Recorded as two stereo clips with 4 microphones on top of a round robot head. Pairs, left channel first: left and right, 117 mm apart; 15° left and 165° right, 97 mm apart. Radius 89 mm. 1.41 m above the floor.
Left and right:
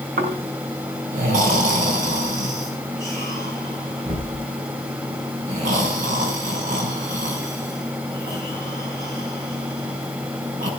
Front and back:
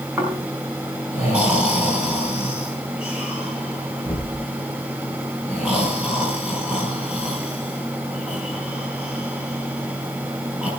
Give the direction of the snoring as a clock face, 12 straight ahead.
3 o'clock.